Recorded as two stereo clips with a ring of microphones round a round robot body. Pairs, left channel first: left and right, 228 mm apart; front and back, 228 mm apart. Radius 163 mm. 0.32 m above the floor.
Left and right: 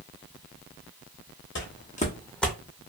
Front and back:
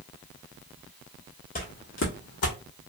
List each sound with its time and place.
1.6 s footsteps: 55° left, 1.2 m; by 2.6 s 5° right, 1.1 m